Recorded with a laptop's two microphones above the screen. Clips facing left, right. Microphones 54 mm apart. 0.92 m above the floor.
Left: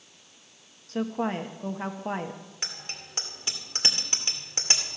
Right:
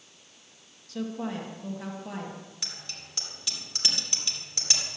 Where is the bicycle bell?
35° left (ahead or behind), 2 m.